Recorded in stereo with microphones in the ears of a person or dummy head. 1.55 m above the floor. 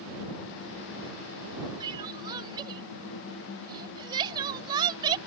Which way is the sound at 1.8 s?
25° right (ahead or behind).